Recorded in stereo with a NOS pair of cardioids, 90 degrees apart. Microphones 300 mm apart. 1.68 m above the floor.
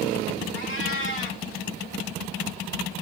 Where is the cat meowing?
45° left, 3 m.